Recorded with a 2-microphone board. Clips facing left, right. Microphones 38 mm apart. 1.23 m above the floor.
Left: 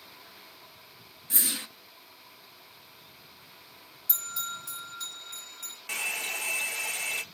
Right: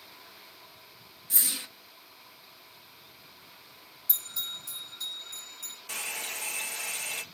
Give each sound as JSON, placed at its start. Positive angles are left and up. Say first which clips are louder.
{"t": 1.3, "sound": "a whoosh", "louder": "left 2 dB", "side_deg": 40, "distance_m": 0.8}
{"t": 4.1, "sound": "a bell", "louder": "left 2 dB", "side_deg": 55, "distance_m": 1.7}
{"t": 5.9, "sound": "a hair dryer", "louder": "left 5 dB", "side_deg": 50, "distance_m": 0.6}